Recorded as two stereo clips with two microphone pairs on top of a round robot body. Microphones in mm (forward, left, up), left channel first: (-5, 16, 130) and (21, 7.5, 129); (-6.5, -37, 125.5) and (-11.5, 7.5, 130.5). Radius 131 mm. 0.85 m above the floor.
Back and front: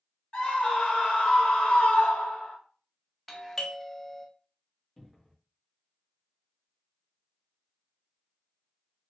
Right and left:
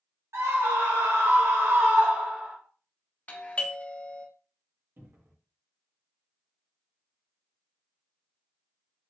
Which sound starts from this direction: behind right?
A doorbell, at 3.3 s.